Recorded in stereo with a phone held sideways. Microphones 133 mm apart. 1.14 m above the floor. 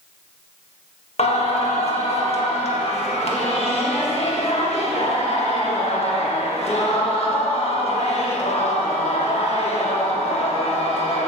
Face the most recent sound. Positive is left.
turn(degrees=50)  # may be behind; listen again after turning